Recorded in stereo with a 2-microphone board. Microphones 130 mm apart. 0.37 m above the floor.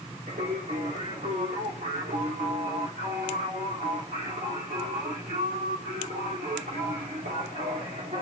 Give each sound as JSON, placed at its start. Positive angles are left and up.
{"t": 0.3, "sound": "singing", "side_deg": -85, "distance_m": 3.0}